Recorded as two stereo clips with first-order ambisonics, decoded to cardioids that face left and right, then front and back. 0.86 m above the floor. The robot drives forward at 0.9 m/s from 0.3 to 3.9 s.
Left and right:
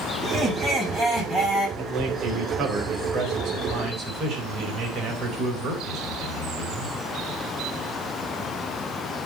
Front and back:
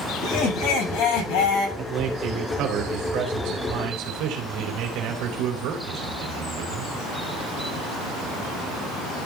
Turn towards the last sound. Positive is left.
turn(degrees=-150)